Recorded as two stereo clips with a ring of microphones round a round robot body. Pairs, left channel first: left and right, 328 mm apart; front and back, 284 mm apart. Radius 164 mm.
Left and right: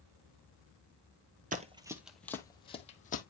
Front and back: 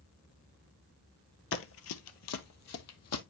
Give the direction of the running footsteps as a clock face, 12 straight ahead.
1 o'clock.